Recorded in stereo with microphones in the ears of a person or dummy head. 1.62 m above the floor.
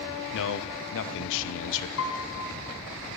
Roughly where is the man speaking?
Left.